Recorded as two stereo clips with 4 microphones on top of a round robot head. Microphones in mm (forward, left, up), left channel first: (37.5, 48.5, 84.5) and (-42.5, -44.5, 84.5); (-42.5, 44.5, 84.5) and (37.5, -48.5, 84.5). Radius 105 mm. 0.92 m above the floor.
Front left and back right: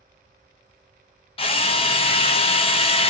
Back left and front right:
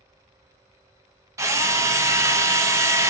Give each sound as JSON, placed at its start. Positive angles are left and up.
{"t": 1.4, "sound": "a drill", "azimuth_deg": 15, "distance_m": 0.6}